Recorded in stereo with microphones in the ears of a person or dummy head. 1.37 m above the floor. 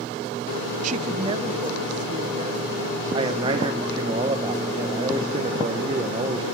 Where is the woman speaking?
45° right (ahead or behind), 0.6 m; by 4.1 s 20° right (ahead or behind), 5.5 m.